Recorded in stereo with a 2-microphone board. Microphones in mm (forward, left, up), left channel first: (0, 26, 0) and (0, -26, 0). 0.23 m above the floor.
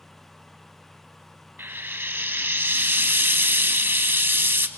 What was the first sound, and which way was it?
Frying, 45° right (ahead or behind).